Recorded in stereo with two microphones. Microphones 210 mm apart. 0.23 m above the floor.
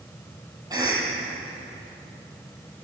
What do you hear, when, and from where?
0.7 s a cough: 15° right (ahead or behind), 7.5 m